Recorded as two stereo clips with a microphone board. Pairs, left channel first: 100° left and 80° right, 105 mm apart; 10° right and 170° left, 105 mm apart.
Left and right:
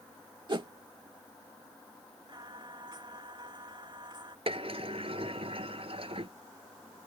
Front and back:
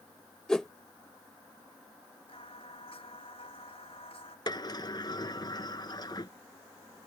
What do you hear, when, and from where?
0.5 s a whoosh: 95° right
2.3 s singing: 35° right
4.5 s a sliding door: 60° right